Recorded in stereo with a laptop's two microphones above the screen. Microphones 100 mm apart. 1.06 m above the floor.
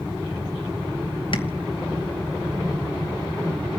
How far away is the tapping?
About 2.5 m.